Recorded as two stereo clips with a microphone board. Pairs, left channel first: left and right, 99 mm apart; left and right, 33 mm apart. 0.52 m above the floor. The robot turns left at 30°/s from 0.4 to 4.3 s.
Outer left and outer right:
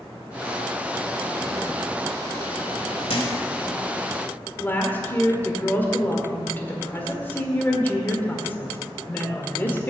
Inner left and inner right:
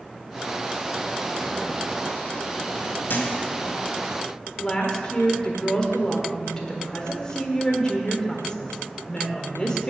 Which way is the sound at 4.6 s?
20° left (ahead or behind).